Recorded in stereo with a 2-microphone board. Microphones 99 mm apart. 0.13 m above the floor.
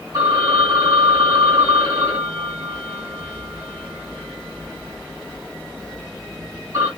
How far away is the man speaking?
No man speaking in this recording.